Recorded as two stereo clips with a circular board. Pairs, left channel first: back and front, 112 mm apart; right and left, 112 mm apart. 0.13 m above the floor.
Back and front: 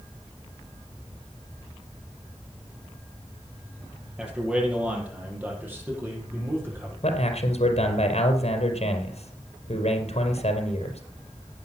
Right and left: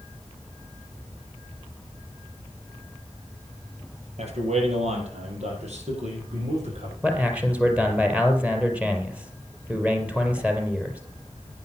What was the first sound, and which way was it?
A man speaking, 85° left.